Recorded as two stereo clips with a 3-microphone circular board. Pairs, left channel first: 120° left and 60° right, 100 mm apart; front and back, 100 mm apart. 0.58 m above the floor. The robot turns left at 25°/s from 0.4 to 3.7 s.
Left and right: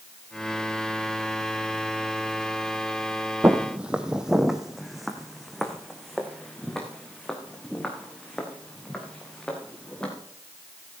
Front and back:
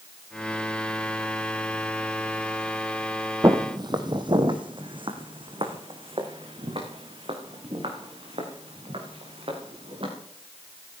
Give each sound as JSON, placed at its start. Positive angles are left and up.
{"t": 3.4, "sound": "footsteps", "azimuth_deg": -125, "distance_m": 1.2}